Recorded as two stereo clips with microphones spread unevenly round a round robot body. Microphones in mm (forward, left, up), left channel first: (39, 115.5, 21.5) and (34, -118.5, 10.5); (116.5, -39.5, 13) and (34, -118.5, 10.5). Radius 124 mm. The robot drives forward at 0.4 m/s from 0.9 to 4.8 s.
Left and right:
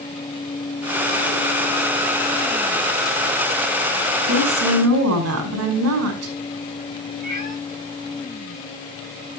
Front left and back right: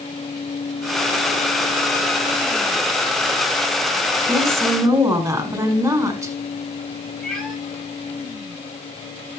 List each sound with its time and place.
4.3 s a woman speaking: 70° right, 5.5 m
7.2 s a cat meowing: 40° right, 7 m